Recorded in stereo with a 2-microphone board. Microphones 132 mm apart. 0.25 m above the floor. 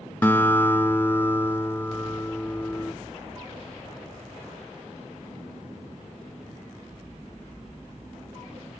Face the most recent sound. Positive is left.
turn(degrees=15)  # may be behind; listen again after turning